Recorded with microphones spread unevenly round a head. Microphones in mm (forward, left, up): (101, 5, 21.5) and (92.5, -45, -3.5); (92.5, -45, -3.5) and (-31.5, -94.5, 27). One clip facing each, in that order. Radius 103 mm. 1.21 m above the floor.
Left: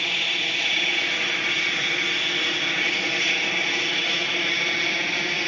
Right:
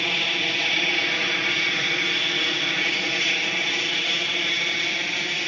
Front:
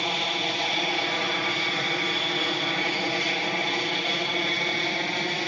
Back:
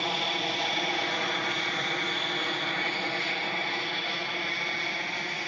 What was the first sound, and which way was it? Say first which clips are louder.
An aircraft: right 1 dB, front 2 dB; 55° right.